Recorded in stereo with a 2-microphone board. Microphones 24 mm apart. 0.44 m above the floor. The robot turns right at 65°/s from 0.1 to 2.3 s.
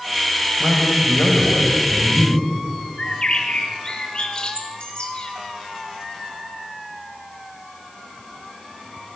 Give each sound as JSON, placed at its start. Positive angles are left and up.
{"t": 0.6, "sound": "a man speaking", "azimuth_deg": 20, "distance_m": 2.5}
{"t": 3.0, "sound": "a bird", "side_deg": 40, "distance_m": 1.4}